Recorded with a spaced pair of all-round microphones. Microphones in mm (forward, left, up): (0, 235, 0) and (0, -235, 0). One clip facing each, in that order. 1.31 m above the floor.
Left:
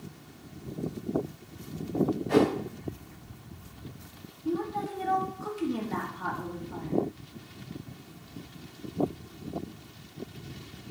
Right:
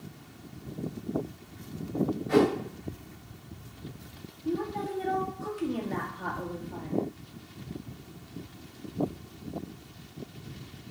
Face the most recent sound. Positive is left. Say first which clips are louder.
# even
turn(degrees=25)  # may be behind; listen again after turning